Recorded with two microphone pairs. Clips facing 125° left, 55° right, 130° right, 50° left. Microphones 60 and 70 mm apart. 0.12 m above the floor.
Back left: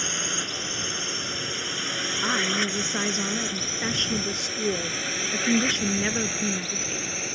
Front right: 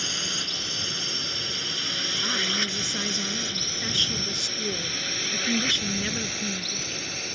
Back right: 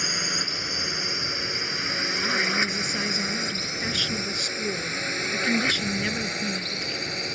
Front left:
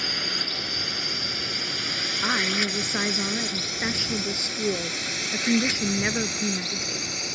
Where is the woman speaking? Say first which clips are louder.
Back left 4 dB, front left 1 dB; 85° left.